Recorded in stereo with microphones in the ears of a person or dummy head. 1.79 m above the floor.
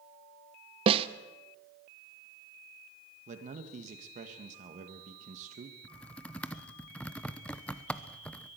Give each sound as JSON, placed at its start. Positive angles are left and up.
{"t": 0.9, "sound": "a snare drum", "side_deg": -30, "distance_m": 0.8}
{"t": 3.3, "sound": "a man speaking", "side_deg": -40, "distance_m": 1.9}
{"t": 5.8, "sound": "typing on a keyboard", "side_deg": 5, "distance_m": 0.9}